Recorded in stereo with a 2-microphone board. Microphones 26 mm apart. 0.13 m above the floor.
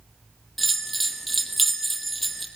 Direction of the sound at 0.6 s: Centre (ahead or behind).